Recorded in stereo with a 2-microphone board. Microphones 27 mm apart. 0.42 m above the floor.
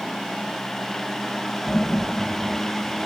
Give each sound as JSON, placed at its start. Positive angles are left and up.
{"t": 1.7, "sound": "laughter", "side_deg": 50, "distance_m": 7.0}